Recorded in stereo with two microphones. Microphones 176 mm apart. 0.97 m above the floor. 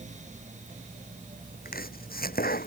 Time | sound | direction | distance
1.6 | chopping | 60° left (ahead or behind) | ?